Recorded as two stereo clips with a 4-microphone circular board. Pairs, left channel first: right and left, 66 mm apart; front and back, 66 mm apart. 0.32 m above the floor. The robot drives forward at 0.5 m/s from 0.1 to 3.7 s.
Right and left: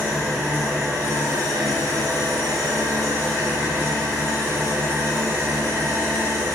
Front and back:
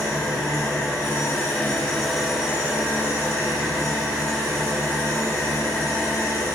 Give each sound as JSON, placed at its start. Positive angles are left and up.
{"t": 0.0, "sound": "an engine running", "azimuth_deg": 30, "distance_m": 1.2}